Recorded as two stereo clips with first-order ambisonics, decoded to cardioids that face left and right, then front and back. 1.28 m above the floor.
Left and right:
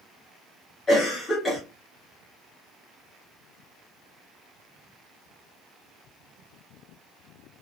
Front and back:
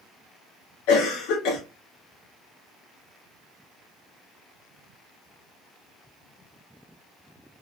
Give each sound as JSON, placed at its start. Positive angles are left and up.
{"t": 0.9, "sound": "a cough", "azimuth_deg": 15, "distance_m": 0.8}